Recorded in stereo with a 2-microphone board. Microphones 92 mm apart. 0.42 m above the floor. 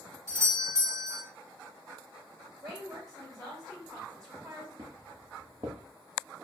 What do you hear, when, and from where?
0.3 s a doorbell: 30° right (ahead or behind), 1.4 m
2.6 s a woman speaking: 45° right (ahead or behind), 2 m
4.8 s footsteps: 45° right (ahead or behind), 1.5 m